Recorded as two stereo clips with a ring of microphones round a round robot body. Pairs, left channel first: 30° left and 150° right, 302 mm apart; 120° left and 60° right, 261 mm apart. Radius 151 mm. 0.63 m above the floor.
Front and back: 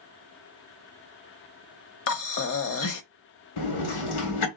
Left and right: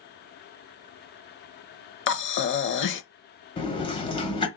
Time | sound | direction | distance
2.1 | breathing | 75° left | 0.8 m
3.6 | a sliding door | 50° left | 1.3 m